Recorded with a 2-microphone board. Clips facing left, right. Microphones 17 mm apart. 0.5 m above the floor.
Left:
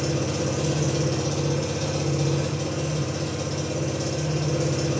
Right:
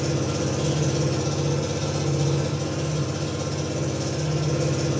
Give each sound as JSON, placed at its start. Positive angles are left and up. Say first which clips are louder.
{"t": 0.0, "sound": "an engine running", "louder": "even", "side_deg": 15, "distance_m": 6.0}